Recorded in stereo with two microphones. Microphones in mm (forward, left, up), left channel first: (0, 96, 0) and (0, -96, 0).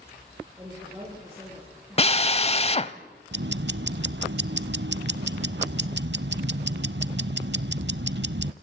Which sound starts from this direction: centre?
A woman speaking, at 0.6 s.